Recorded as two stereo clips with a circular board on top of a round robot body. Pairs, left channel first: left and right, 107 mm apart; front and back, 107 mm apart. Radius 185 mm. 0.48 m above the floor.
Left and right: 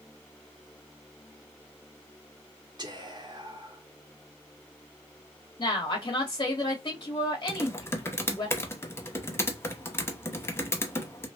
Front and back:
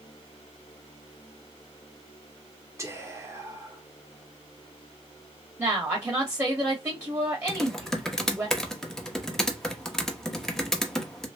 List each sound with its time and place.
2.8 s whispering: 125° right, 1.9 m
5.6 s a woman speaking: 120° left, 1.6 m
7.5 s typing on a keyboard: 80° left, 1.1 m